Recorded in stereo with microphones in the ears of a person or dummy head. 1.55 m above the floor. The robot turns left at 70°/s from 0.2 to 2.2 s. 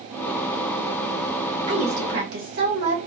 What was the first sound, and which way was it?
A woman speaking, 30° right.